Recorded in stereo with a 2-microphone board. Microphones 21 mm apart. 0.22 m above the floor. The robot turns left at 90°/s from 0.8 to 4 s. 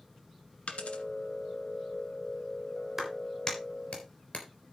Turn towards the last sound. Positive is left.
turn(degrees=70)  # may be behind; listen again after turning